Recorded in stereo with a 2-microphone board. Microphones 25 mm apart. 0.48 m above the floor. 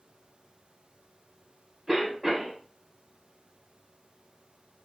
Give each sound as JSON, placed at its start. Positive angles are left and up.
{"t": 1.9, "sound": "a cough", "side_deg": -25, "distance_m": 1.1}